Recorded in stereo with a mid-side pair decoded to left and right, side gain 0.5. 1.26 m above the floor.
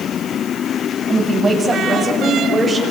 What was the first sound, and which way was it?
A woman speaking, 20° right.